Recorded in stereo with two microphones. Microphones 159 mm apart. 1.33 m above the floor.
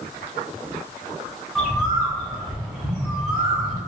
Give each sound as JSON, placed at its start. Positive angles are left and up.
{"t": 1.6, "sound": "a bird", "side_deg": -5, "distance_m": 1.5}